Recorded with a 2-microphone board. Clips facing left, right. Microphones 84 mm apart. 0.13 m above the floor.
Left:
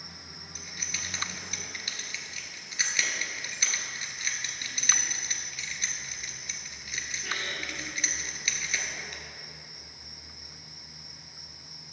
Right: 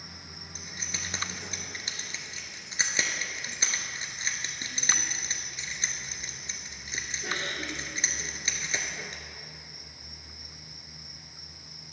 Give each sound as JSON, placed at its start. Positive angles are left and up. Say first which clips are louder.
{"t": 0.6, "sound": "keys jangling", "louder": "right 1 dB", "side_deg": -30, "distance_m": 1.2}